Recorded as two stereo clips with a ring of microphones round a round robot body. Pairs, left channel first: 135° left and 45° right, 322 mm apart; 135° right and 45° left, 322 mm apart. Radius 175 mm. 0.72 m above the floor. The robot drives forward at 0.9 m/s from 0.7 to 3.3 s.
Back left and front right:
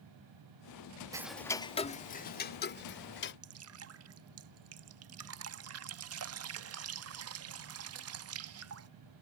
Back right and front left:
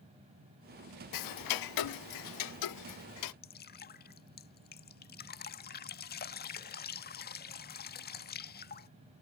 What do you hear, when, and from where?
1.1 s ticking: 125° right; by 3.3 s 170° right
3.4 s dripping: 80° right